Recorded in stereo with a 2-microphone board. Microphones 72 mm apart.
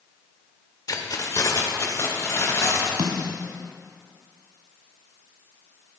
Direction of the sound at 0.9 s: 55° left (ahead or behind).